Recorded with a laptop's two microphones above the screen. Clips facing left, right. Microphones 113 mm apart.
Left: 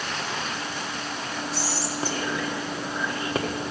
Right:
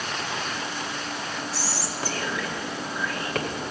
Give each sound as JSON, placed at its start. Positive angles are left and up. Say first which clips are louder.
{"t": 1.5, "sound": "whispering", "louder": "left 2 dB", "side_deg": 20, "distance_m": 1.6}